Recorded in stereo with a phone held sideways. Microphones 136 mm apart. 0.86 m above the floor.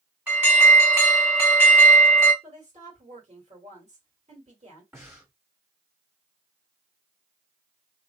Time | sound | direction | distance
0.3 | an alarm | 10° right (ahead or behind) | 1.7 m
2.4 | a woman speaking | 55° right (ahead or behind) | 1.7 m
4.9 | breathing | 15° right (ahead or behind) | 1.5 m